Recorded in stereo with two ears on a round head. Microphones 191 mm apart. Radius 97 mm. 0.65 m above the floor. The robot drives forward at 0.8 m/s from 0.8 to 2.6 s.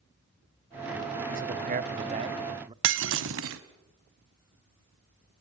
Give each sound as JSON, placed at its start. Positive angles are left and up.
{"t": 1.3, "sound": "a man speaking", "side_deg": -40, "distance_m": 0.7}
{"t": 2.8, "sound": "breaking glass", "side_deg": -60, "distance_m": 1.2}